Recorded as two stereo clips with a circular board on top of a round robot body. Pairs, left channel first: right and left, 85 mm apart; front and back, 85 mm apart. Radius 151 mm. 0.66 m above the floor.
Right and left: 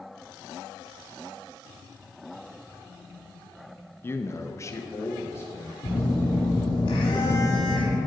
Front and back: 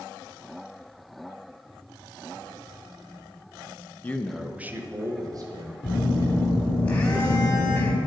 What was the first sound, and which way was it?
A man speaking, 50° right.